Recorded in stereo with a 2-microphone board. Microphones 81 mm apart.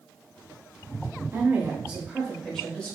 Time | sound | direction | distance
1.3 | a woman speaking | 30° right (ahead or behind) | 1.1 m